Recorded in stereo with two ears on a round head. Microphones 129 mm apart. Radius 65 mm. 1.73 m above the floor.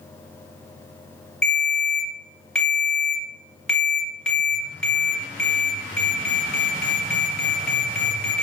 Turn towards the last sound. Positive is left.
turn(degrees=5)  # may be behind; listen again after turning